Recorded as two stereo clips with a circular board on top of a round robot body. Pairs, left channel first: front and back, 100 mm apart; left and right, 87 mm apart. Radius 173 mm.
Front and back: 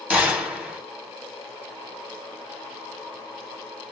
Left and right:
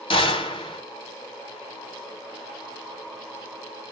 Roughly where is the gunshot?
Left.